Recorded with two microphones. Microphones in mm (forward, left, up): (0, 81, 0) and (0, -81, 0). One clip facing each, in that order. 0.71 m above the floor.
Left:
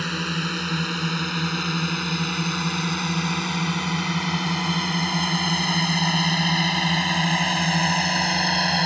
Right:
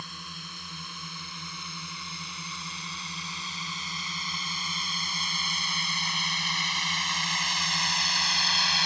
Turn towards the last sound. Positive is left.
turn(degrees=55)  # may be behind; listen again after turning